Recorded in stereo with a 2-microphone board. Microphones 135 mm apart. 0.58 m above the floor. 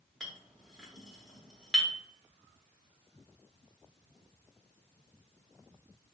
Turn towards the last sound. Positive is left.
turn(degrees=0)  # may be behind; listen again after turning